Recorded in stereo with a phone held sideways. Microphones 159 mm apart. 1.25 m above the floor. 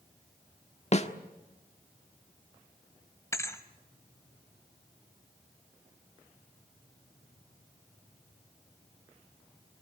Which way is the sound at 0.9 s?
45° left (ahead or behind).